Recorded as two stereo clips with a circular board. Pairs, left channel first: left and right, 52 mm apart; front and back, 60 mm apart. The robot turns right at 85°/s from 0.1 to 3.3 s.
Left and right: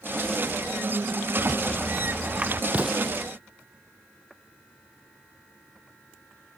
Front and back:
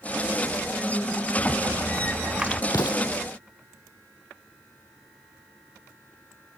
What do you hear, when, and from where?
1.4 s a rattle: 150° left; by 2.6 s 105° right
2.7 s an explosion: 30° right; by 3.1 s 5° left